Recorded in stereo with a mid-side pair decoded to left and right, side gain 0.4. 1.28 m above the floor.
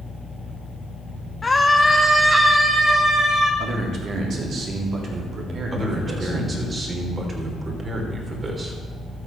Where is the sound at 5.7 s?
40° right, 3.5 m.